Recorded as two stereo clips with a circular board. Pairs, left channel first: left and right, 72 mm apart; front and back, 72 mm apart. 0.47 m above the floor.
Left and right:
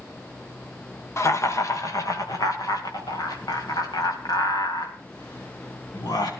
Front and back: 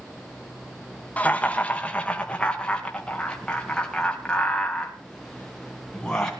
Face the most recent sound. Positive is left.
turn(degrees=85)